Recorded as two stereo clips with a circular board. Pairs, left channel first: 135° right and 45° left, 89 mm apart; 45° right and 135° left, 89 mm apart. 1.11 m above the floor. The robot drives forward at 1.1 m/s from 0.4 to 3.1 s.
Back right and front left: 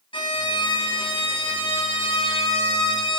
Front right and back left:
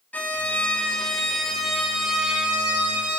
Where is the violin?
120° right, 3 m; by 3.2 s 150° right, 5 m.